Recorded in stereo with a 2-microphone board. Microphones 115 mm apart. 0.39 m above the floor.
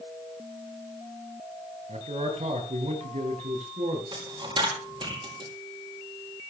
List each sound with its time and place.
1.9 s a man speaking: 70° right (ahead or behind), 6.5 m; by 4.0 s 80° right, 7 m
4.1 s a dropped coin: 45° right (ahead or behind), 4.5 m